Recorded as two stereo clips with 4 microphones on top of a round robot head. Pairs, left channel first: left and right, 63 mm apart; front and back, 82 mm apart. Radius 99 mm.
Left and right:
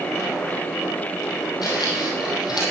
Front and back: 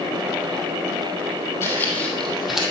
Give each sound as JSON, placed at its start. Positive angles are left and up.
{"t": 1.6, "sound": "footsteps", "azimuth_deg": 55, "distance_m": 2.5}